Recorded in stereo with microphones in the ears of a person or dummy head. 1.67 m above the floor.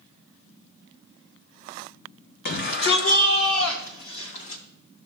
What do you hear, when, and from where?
2.5 s a shout: 55° left (ahead or behind), 1.6 m; by 4.6 s 85° left, 3 m